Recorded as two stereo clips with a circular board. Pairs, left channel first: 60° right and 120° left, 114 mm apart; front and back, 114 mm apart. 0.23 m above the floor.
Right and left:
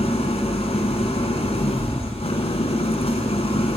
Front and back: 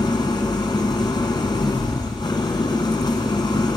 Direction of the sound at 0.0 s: 45° right.